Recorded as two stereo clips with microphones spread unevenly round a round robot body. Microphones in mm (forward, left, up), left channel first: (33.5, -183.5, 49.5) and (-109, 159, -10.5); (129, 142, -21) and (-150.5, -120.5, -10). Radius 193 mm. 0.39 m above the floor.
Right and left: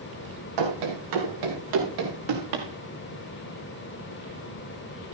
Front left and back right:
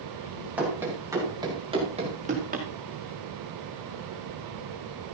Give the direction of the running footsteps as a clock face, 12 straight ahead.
7 o'clock.